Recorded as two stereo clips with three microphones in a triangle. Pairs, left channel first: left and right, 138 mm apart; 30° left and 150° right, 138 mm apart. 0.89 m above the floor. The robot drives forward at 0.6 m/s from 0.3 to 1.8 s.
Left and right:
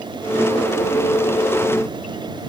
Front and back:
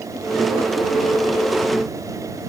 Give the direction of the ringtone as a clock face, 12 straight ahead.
I don't hear a ringtone.